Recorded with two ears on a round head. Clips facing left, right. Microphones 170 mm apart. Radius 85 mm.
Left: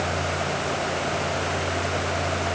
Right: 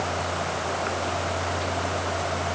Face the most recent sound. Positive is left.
No sound to turn to.